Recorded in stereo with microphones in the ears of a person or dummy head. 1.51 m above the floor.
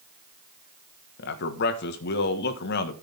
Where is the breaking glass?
No breaking glass in this recording.